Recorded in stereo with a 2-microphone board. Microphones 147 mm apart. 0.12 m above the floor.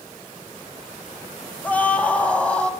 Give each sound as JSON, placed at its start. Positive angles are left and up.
{"t": 1.6, "sound": "a scream", "side_deg": 10, "distance_m": 2.5}